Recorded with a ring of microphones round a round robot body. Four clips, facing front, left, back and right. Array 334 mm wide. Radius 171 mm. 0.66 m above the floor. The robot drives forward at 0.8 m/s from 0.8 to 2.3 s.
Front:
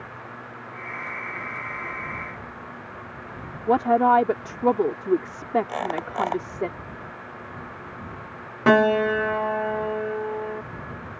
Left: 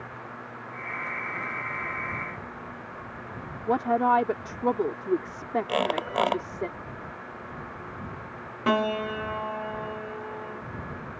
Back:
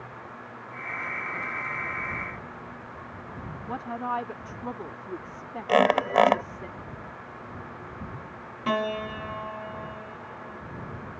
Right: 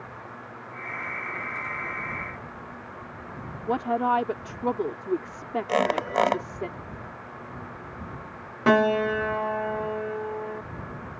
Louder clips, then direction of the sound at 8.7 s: Right 5 dB, front 10 dB; 20° right.